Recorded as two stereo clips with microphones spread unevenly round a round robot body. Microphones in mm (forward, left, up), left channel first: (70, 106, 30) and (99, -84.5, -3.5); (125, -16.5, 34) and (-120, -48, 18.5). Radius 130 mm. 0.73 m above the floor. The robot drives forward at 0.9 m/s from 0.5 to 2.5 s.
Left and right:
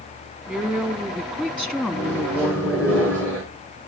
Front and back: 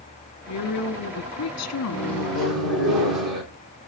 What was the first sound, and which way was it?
A woman speaking, 5° left.